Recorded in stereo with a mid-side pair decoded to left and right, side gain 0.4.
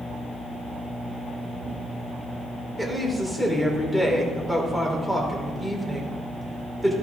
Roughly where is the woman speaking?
Ahead.